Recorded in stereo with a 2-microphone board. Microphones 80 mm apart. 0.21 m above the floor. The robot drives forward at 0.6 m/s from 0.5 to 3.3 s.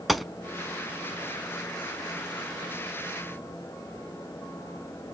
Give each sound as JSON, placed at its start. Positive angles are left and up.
{"t": 0.1, "sound": "a gunshot", "side_deg": 0, "distance_m": 0.7}